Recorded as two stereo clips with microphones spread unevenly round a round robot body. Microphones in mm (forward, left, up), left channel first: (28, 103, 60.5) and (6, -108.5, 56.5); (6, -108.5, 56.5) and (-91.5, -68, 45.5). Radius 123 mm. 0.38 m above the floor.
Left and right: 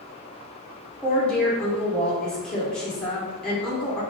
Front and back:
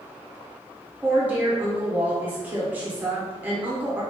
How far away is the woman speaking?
About 1.2 m.